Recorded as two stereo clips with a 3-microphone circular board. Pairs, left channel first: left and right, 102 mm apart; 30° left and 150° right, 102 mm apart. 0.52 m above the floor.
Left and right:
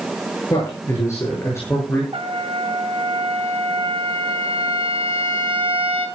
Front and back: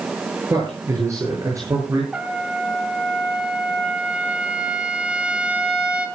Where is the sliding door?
I don't hear a sliding door.